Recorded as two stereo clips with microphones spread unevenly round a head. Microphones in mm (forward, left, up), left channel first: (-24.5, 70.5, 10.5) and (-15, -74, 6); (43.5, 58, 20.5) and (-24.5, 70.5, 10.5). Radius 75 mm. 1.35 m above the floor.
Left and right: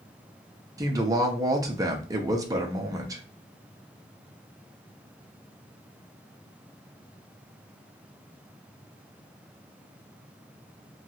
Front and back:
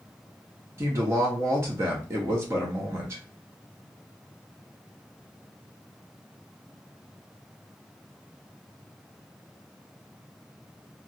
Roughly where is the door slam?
I don't hear a door slam.